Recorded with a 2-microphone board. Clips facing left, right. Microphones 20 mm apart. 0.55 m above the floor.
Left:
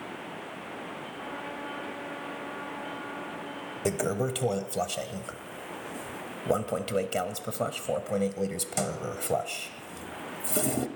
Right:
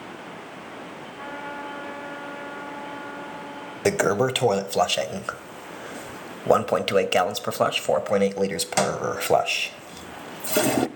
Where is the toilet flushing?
50° right (ahead or behind), 0.6 m.